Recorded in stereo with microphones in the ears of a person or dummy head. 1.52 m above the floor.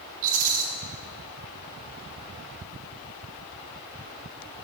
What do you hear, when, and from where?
0.2 s a rattle: 40° right (ahead or behind), 1.1 m